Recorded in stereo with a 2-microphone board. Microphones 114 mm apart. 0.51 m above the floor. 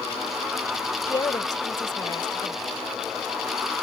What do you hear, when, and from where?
1.1 s a woman speaking: 40° left (ahead or behind)